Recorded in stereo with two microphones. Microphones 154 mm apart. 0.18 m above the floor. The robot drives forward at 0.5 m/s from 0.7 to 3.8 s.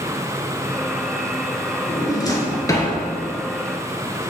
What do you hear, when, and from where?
1.9 s a drawer: 25° left (ahead or behind), 1.4 m; by 2.9 s 20° left (ahead or behind), 1.8 m